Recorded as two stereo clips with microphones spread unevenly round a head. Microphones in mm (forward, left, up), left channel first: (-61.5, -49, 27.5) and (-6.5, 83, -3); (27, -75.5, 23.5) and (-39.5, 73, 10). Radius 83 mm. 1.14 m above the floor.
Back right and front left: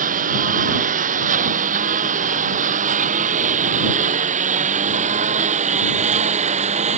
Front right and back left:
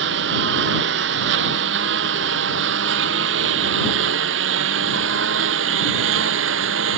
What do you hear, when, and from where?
0.0 s a lawn mower: 95° left; by 7.0 s 105° left